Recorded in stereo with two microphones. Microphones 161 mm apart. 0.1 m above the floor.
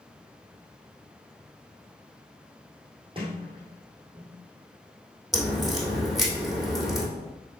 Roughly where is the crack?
Centre.